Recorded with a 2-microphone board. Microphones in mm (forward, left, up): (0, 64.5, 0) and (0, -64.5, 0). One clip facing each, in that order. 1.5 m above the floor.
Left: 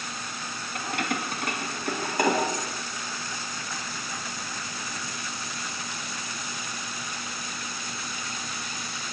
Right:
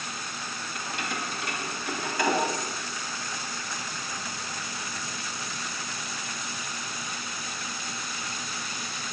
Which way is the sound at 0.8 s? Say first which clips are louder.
Left 5 dB; 65° left (ahead or behind).